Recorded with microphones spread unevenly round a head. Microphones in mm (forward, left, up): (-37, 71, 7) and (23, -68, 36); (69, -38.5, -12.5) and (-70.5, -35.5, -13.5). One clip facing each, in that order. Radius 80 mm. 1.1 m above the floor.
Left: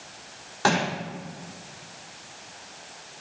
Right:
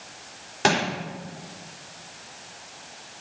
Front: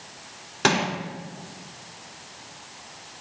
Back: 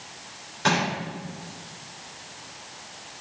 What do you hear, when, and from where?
0.6 s crushing: straight ahead, 4 m